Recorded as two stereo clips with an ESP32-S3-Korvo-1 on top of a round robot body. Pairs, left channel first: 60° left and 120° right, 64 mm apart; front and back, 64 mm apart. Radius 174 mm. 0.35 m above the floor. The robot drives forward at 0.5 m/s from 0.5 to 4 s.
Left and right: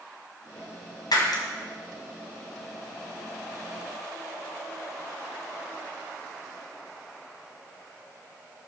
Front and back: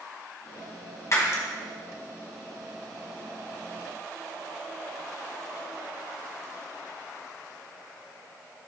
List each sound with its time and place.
1.1 s breaking glass: 45° left, 1.6 m; by 1.4 s 50° left, 1.5 m